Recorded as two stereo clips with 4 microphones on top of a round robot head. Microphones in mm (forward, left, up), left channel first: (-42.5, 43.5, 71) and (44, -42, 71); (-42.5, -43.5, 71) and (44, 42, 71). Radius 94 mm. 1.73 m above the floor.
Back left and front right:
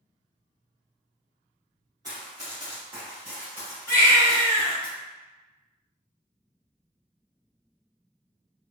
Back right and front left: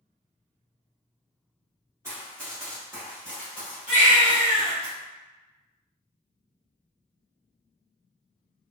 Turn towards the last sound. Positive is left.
turn(degrees=65)